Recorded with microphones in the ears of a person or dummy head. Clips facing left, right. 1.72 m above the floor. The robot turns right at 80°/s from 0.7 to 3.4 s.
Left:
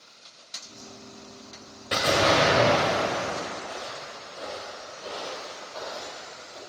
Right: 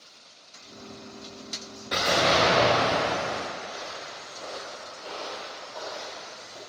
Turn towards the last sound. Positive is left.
turn(degrees=0)  # may be behind; listen again after turning